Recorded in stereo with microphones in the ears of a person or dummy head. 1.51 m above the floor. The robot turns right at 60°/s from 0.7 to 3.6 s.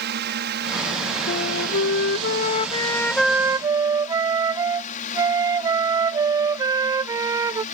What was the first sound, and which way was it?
A drone, 55° right (ahead or behind).